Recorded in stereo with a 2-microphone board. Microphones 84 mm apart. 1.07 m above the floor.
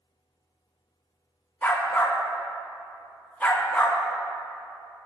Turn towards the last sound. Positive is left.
turn(degrees=20)  # may be behind; listen again after turning